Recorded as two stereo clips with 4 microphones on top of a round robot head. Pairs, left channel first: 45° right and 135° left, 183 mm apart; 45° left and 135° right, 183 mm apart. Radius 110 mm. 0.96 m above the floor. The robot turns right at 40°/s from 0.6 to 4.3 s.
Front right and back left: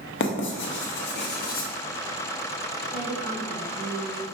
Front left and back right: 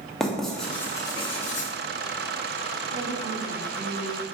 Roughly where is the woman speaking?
Behind right.